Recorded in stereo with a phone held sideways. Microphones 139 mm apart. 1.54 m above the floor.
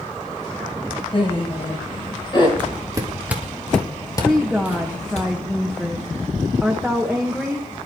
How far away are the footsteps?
About 2.5 m.